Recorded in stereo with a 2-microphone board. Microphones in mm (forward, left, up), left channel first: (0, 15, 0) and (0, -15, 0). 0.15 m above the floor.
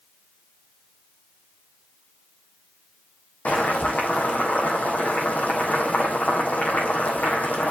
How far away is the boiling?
About 3 m.